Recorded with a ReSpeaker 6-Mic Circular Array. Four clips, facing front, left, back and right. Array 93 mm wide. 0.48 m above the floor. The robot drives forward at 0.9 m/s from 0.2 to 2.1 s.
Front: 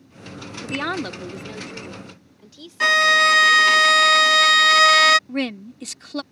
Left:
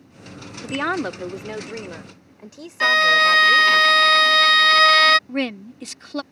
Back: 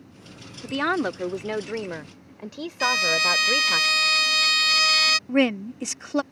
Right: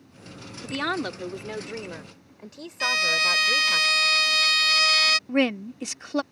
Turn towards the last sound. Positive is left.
turn(degrees=-160)